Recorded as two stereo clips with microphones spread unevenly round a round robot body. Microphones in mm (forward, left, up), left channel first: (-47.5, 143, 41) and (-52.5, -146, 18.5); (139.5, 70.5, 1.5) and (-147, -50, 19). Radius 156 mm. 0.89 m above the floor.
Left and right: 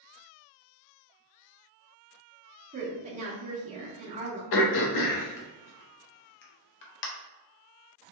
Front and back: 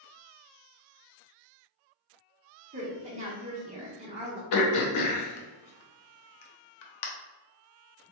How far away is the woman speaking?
About 0.7 m.